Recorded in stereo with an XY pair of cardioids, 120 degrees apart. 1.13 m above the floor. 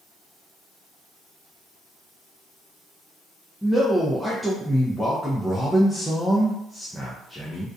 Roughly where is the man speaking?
Ahead.